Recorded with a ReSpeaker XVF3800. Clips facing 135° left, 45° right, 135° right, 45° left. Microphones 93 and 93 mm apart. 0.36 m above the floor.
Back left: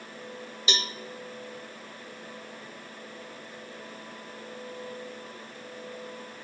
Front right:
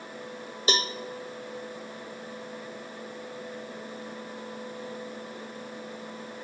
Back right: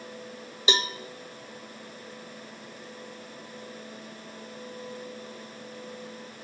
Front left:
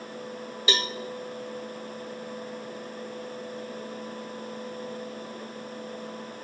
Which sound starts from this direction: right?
A cowbell, at 0.7 s.